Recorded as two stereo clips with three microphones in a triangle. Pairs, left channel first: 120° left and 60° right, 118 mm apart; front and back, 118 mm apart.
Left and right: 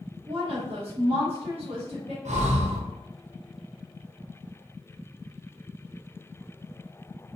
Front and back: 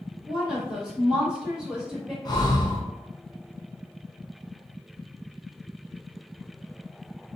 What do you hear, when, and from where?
0.3 s a woman speaking: 95° right, 1.6 m
2.2 s breathing: 55° right, 0.6 m